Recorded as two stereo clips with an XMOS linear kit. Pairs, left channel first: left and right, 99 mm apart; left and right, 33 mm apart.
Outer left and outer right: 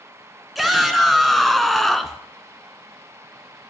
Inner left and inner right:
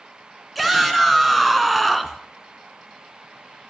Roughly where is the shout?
Centre.